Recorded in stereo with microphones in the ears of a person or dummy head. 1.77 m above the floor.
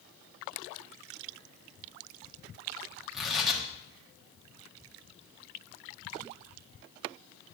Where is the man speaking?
I don't hear a man speaking.